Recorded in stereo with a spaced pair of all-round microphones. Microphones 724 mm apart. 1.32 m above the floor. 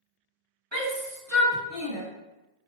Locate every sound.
0.7 s a shout: 40° right (ahead or behind), 1.5 m; by 2.0 s 5° right (ahead or behind), 1.5 m